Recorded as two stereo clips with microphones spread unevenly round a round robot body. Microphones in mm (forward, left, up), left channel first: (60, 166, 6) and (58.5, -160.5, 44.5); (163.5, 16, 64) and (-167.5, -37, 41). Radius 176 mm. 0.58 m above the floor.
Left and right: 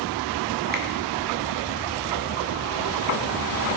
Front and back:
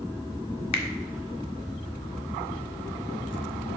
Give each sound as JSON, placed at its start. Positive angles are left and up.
{"t": 0.7, "sound": "a finger snap", "azimuth_deg": -30, "distance_m": 1.5}